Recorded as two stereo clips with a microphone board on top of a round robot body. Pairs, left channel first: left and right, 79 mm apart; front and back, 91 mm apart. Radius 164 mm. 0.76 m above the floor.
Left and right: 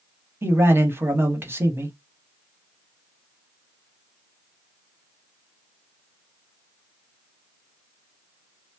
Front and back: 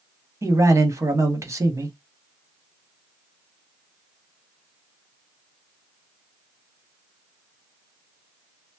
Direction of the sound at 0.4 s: 140° right.